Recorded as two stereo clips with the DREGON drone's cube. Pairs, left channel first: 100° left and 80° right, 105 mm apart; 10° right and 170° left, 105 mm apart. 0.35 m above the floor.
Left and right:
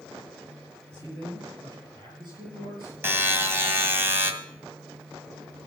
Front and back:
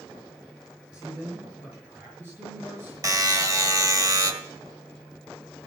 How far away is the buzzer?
About 1.6 m.